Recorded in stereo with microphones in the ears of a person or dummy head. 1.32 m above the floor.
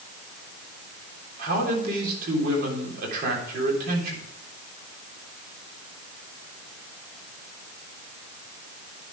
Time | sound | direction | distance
1.4 | a man speaking | 55° right (ahead or behind) | 3.5 m